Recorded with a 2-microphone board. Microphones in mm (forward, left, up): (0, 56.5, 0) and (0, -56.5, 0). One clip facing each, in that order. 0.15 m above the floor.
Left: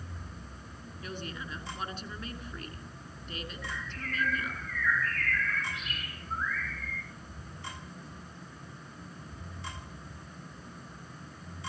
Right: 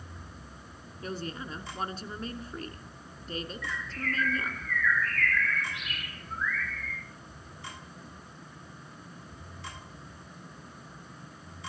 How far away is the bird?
About 4 m.